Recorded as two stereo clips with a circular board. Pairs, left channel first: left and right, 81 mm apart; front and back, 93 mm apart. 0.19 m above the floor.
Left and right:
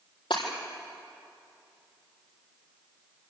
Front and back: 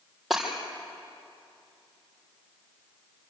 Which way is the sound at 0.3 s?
90° left.